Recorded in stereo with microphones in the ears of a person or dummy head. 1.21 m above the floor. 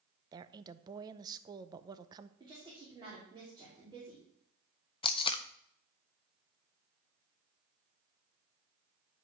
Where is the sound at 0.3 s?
25° right (ahead or behind), 0.7 m.